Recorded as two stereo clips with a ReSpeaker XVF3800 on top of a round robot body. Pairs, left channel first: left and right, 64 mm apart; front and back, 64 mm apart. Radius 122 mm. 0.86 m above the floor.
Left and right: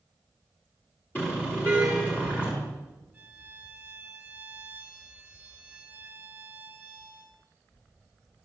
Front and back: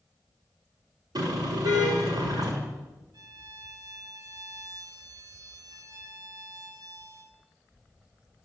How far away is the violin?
About 1.2 m.